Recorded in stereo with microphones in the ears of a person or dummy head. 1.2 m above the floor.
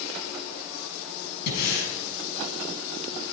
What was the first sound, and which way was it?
Breathing, 60° left (ahead or behind).